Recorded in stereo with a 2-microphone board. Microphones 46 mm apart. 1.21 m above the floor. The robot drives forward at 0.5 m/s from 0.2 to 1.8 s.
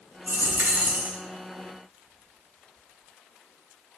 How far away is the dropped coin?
About 0.6 m.